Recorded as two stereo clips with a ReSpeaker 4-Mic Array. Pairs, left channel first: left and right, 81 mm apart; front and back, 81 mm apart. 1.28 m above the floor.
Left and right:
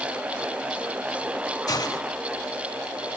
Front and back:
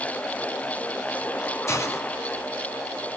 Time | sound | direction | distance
1.7 | a hiss | 50° left | 2.5 m